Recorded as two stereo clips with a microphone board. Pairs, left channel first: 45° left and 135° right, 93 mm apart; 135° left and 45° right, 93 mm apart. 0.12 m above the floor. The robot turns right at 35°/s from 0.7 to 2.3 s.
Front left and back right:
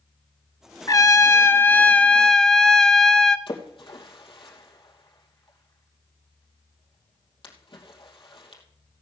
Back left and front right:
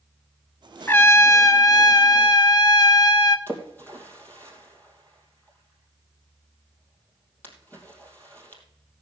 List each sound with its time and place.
0.9 s a trumpet: 75° left, 0.6 m; by 3.4 s 125° left, 0.6 m
3.5 s a splash: 65° left, 3 m